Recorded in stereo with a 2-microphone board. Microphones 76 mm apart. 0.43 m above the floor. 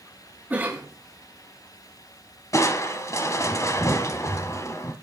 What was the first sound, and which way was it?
A cough, 25° right (ahead or behind).